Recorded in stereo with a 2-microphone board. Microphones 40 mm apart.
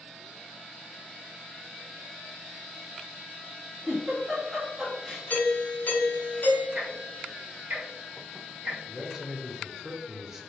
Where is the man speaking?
5° right (ahead or behind), 0.7 m.